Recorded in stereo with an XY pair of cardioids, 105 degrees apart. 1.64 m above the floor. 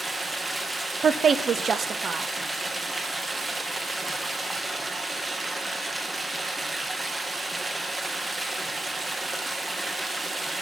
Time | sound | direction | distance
0.0 | running water | 20° right | 1.6 m
1.0 | a woman speaking | 45° right | 0.7 m